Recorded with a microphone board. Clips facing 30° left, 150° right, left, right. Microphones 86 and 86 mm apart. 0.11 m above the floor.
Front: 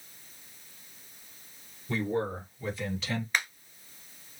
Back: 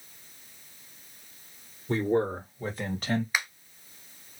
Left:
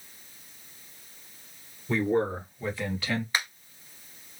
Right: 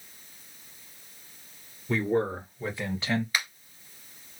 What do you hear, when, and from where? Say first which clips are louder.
1.9 s a man speaking: back 5 dB, left 1 dB; 175° right, 2.5 m; by 3.2 s 145° right, 2.5 m
3.3 s a finger snap: even, left 1 dB; 135° left, 1.2 m